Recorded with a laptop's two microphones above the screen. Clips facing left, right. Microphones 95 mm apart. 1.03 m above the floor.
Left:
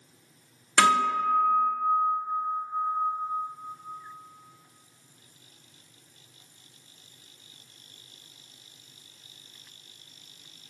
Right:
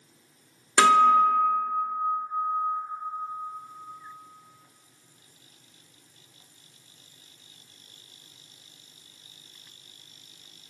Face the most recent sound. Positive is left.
turn(degrees=-20)  # may be behind; listen again after turning